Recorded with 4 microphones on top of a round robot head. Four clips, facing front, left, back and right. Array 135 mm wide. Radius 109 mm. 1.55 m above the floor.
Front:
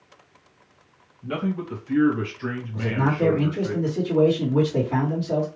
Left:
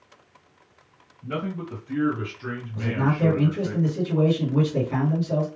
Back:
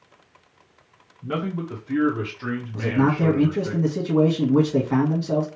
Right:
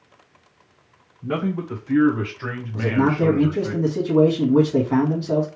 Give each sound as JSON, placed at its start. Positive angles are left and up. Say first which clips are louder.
{"t": 1.2, "sound": "a man speaking", "louder": "right 6 dB, even", "azimuth_deg": -120, "distance_m": 1.9}
{"t": 2.7, "sound": "a man speaking", "louder": "right 6 dB, back 3 dB", "azimuth_deg": -130, "distance_m": 2.0}